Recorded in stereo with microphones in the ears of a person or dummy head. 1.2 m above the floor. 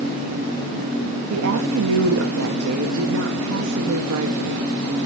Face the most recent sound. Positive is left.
turn(degrees=-90)